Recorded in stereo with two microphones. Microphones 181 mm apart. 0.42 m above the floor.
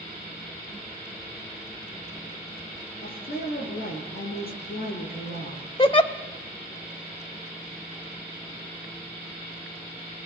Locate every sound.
3.0 s a woman speaking: 55° left (ahead or behind), 6.5 m
5.8 s a giggle: 30° left (ahead or behind), 1.1 m